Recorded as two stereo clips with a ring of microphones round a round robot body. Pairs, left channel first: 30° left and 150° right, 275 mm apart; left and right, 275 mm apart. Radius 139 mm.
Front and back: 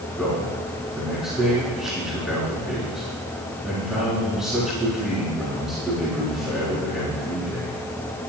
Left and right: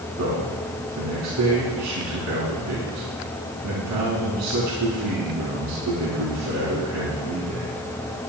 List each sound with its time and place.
0.2 s a man speaking: 60° right, 5 m